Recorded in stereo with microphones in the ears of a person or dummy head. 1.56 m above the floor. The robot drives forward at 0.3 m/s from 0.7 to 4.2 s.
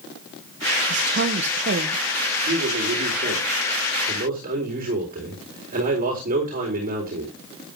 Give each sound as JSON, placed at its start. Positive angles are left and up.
{"t": 0.9, "sound": "a woman speaking", "side_deg": -55, "distance_m": 1.2}
{"t": 2.5, "sound": "a man speaking", "side_deg": -45, "distance_m": 4.0}